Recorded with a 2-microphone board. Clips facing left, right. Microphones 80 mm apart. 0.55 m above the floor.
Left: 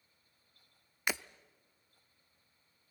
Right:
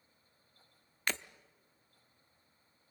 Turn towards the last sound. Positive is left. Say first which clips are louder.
# left 1 dB
turn(degrees=10)  # may be behind; listen again after turning